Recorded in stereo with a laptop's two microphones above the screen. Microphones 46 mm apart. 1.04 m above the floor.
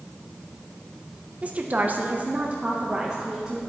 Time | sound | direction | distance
1.4 | a woman speaking | 25° right (ahead or behind) | 0.7 m